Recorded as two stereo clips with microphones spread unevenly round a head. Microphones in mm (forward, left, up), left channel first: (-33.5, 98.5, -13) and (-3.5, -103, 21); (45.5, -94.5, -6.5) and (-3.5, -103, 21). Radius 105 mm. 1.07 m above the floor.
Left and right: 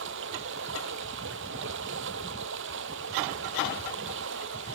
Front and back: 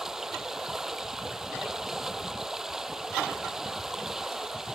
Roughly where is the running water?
Right.